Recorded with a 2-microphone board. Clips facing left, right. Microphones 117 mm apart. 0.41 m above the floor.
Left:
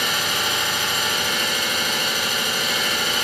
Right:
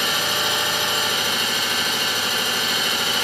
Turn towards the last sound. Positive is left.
turn(degrees=-25)  # may be behind; listen again after turning